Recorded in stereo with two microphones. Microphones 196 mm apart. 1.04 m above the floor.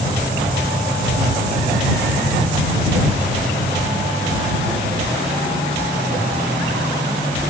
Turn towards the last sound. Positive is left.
No sound to turn to.